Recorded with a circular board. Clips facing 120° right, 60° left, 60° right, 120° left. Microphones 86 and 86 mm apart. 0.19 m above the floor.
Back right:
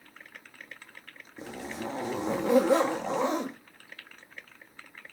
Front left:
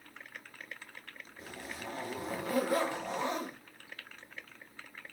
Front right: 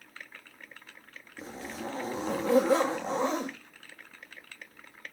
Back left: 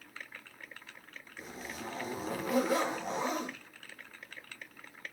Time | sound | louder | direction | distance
1.4 | a zipper | back right 8 dB, front right 5 dB | 120° right | 1.6 m